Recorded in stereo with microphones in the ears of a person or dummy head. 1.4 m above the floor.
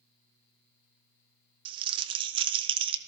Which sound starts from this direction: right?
Crumpling, at 1.6 s.